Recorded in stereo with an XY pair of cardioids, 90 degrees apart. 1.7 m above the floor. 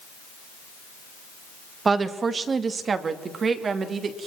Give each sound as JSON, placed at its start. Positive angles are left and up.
{"t": 1.9, "sound": "a woman speaking", "azimuth_deg": -40, "distance_m": 2.0}